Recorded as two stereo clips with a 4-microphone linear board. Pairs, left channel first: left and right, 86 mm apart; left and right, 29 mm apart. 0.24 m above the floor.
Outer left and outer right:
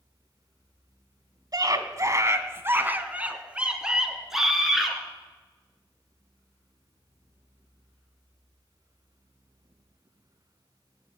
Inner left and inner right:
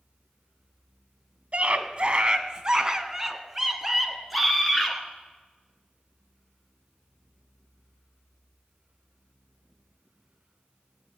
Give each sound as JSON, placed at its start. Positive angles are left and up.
{"t": 1.5, "sound": "a scream", "side_deg": -50, "distance_m": 1.4}